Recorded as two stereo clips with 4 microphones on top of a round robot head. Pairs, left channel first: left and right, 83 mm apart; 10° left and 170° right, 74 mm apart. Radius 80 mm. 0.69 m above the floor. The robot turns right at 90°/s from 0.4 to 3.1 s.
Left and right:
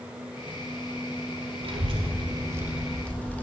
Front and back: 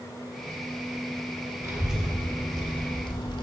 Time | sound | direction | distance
1.6 | a child speaking | 115° right | 1.1 m